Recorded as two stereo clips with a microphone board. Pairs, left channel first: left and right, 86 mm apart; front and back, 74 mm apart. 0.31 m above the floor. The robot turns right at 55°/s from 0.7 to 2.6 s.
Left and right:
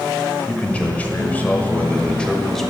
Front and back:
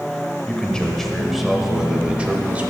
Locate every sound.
0.5 s a man speaking: 60° left, 0.9 m; by 2.7 s 160° left, 0.9 m